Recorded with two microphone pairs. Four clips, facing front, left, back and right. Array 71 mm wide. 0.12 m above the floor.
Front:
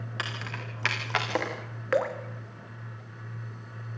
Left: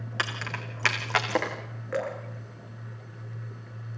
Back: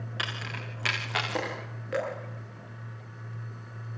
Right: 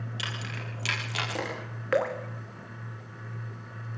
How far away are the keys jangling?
About 5 m.